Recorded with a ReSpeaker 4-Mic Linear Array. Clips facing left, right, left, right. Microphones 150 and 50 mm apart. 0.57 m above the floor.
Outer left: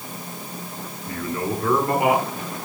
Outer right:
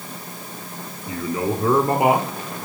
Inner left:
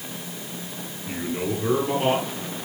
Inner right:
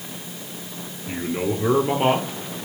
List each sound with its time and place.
1.1 s a man speaking: 5° right (ahead or behind), 0.9 m; by 2.3 s 30° right (ahead or behind), 1.6 m